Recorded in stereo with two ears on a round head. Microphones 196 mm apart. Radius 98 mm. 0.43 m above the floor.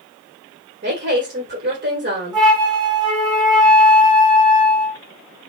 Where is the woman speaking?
35° right (ahead or behind), 1.5 m.